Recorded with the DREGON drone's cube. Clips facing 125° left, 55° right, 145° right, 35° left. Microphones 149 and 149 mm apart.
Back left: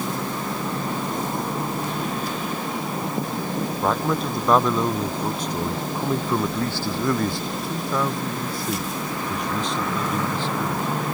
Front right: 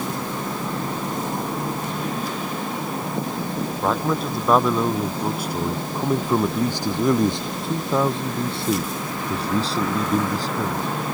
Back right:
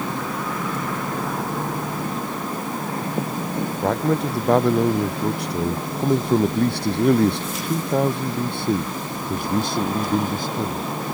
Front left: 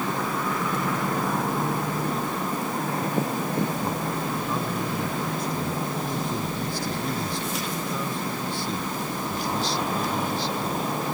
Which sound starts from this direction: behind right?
A man speaking, at 3.8 s.